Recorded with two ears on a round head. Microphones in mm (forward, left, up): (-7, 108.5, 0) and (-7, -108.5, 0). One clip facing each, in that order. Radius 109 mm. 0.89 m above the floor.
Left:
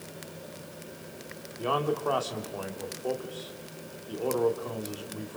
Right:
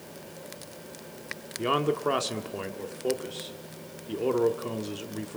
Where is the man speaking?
30° right (ahead or behind), 1.8 m.